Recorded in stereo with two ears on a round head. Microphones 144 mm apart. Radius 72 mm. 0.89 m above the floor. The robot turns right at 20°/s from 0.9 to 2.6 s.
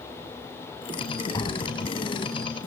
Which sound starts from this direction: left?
Tapping, at 1.3 s.